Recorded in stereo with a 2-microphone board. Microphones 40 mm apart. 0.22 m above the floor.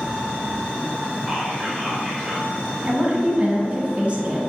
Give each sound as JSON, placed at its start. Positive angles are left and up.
{"t": 1.3, "sound": "whispering", "side_deg": 20, "distance_m": 1.7}
{"t": 2.8, "sound": "a woman speaking", "side_deg": -30, "distance_m": 1.4}